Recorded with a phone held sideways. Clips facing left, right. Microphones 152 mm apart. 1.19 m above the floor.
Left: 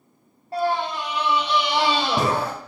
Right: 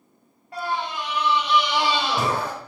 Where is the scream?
35° left (ahead or behind), 0.7 m.